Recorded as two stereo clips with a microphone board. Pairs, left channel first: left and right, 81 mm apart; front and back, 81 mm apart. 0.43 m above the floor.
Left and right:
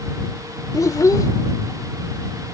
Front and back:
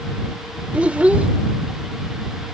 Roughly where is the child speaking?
Left.